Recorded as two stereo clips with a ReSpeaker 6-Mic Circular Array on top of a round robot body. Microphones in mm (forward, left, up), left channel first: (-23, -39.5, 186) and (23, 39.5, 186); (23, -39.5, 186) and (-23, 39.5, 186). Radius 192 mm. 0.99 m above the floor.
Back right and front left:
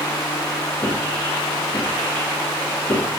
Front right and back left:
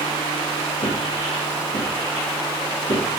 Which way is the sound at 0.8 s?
60° right.